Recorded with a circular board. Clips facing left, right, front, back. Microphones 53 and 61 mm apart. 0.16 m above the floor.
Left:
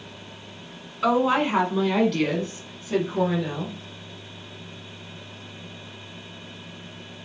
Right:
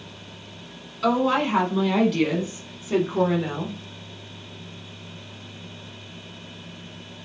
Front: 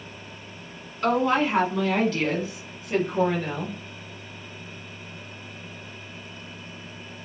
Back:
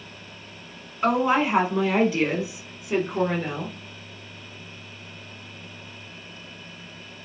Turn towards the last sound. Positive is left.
turn(degrees=-100)